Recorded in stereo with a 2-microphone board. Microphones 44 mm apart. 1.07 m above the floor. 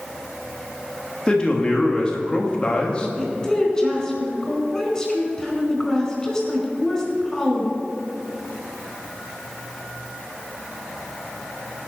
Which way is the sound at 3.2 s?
15° left (ahead or behind).